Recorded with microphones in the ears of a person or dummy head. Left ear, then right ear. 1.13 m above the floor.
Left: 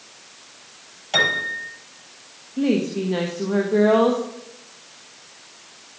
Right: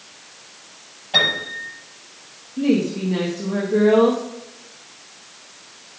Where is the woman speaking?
30° left (ahead or behind), 1.1 m.